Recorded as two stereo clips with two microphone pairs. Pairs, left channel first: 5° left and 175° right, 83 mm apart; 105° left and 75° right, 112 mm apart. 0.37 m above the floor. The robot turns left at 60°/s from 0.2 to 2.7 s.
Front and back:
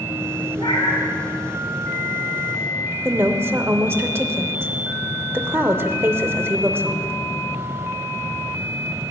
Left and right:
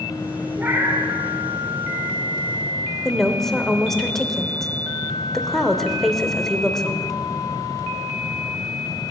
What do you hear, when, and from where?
0.6 s a cat meowing: straight ahead, 2.5 m; by 1.1 s 30° right, 2.5 m
3.0 s a woman speaking: 175° right, 0.9 m